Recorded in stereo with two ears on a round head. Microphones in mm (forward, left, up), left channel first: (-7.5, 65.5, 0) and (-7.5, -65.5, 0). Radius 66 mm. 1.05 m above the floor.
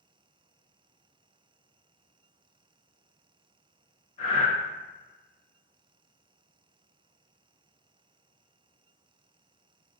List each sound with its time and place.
4.2 s breathing: 40° left (ahead or behind), 0.8 m